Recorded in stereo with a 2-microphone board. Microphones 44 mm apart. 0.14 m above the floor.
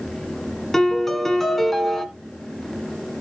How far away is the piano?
About 1.4 m.